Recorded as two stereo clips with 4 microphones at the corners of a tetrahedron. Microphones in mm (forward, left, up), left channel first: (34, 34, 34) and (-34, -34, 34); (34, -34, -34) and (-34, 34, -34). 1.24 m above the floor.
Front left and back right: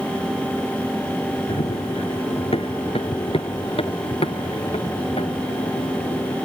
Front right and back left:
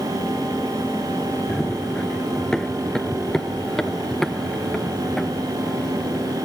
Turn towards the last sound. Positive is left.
turn(degrees=40)